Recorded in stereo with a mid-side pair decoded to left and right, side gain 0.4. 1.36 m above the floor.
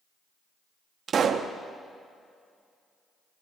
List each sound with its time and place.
1.1 s a pop: 55° right, 0.8 m